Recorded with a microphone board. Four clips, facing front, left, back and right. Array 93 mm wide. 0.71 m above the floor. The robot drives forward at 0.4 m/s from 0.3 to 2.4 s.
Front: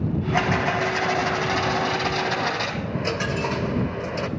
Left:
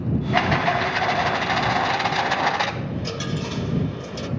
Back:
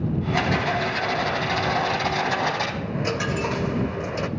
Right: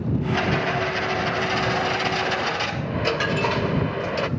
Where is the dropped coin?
100° right, 0.5 m.